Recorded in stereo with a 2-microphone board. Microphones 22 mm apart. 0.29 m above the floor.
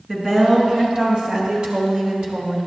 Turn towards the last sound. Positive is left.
turn(degrees=-50)  # may be behind; listen again after turning